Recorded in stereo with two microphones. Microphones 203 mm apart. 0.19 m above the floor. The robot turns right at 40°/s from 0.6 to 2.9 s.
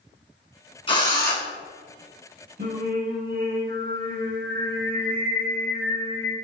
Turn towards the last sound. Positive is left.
turn(degrees=-55)  # may be behind; listen again after turning